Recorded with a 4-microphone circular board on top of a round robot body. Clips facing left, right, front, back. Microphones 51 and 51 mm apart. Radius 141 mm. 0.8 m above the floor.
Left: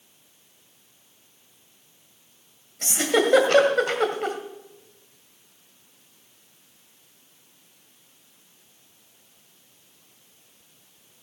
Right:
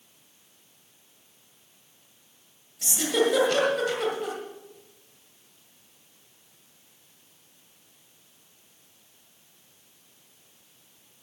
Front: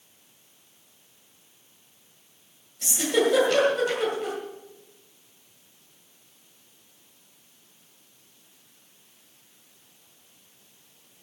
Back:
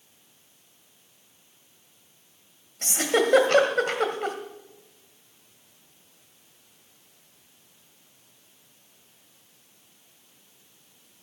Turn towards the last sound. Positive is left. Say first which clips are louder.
# left 3 dB, even
turn(degrees=140)